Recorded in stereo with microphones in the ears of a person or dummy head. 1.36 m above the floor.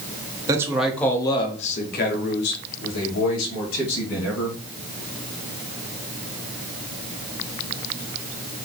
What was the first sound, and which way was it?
A man speaking, 20° right (ahead or behind).